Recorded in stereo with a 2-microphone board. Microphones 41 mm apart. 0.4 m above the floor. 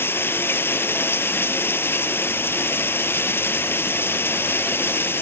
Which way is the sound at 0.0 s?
65° left (ahead or behind).